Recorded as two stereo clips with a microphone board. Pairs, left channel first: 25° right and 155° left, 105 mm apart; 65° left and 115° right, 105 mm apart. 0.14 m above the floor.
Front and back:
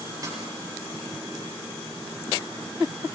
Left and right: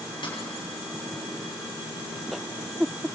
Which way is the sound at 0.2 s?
100° left.